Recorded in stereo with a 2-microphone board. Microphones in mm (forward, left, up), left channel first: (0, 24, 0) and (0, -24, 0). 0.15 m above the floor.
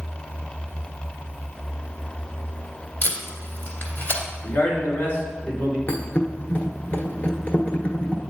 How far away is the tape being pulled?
About 2.0 m.